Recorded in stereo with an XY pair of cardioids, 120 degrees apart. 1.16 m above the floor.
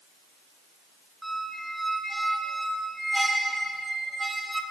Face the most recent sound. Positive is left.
turn(degrees=-5)